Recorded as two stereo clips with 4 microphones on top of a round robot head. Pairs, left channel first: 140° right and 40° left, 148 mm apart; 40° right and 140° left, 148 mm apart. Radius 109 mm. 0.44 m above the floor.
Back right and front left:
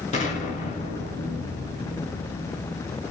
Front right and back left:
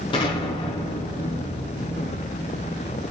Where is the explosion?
95° right, 3.5 m.